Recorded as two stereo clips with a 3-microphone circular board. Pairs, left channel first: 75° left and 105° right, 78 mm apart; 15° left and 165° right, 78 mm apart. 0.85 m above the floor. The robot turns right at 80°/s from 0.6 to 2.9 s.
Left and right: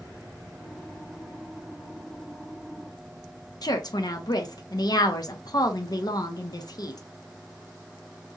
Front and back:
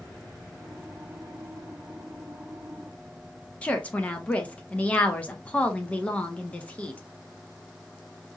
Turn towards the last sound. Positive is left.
turn(degrees=85)